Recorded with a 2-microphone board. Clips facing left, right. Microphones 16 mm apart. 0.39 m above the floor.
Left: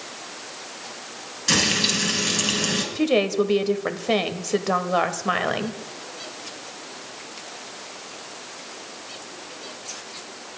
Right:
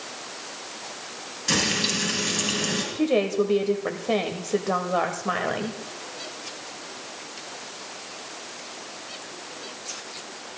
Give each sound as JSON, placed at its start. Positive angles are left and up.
{"t": 1.5, "sound": "frying", "side_deg": 20, "distance_m": 4.0}
{"t": 3.0, "sound": "a woman speaking", "side_deg": 30, "distance_m": 1.3}